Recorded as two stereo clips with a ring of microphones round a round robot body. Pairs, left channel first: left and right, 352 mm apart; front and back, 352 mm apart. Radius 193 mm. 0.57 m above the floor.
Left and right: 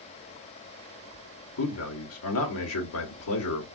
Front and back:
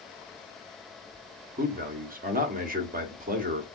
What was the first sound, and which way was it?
A man speaking, 120° left.